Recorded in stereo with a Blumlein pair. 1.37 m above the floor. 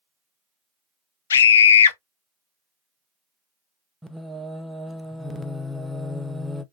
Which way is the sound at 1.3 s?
65° left.